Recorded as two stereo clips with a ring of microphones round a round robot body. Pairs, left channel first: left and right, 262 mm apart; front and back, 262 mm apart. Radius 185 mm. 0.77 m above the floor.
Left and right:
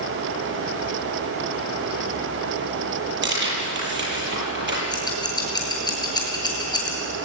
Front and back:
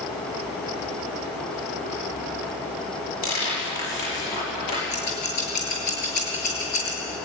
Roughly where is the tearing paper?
Ahead right.